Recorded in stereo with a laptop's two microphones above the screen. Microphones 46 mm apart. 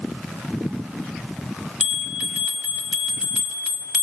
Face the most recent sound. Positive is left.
turn(degrees=-15)  # may be behind; listen again after turning